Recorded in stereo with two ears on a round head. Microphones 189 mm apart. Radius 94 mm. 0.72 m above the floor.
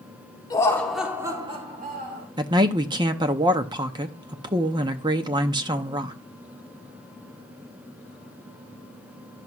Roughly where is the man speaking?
Right.